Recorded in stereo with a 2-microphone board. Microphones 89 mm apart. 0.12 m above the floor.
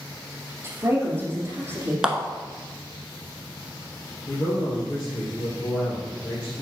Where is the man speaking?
35° left (ahead or behind), 3 m.